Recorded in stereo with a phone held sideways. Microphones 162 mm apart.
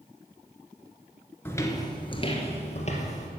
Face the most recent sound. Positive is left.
turn(degrees=45)  # may be behind; listen again after turning